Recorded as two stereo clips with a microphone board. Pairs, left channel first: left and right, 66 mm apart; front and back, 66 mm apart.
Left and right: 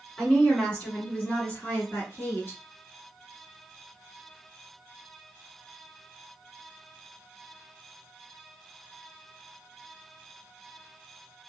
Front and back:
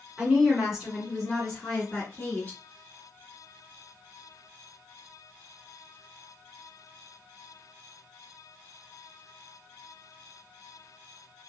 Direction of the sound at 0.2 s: 145° left.